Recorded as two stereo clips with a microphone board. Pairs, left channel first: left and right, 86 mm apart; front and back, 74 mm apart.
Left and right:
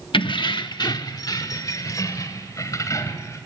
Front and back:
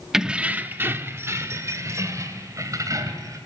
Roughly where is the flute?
I don't hear a flute.